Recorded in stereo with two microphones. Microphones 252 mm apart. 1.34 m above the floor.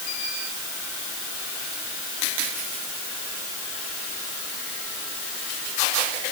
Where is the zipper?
No zipper in this recording.